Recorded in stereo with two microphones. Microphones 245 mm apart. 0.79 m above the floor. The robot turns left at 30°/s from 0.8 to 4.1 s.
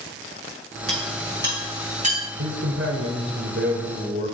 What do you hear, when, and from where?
0.9 s a clink: 65° right (ahead or behind), 6 m; by 2.2 s 25° right (ahead or behind), 6 m
2.4 s a man speaking: 90° right, 3 m; by 4.3 s 145° right, 3 m